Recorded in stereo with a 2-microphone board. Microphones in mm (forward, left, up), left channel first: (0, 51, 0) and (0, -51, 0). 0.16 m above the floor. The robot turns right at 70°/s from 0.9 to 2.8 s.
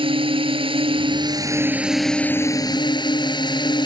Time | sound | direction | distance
0.0 | a drone | 75° right | ?